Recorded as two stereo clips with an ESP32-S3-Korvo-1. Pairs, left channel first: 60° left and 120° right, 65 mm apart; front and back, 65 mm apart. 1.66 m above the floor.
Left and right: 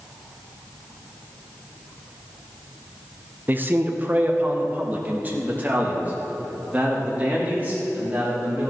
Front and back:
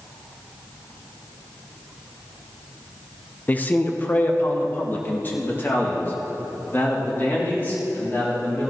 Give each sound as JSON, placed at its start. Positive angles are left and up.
{"t": 3.5, "sound": "a man speaking", "azimuth_deg": -65, "distance_m": 0.9}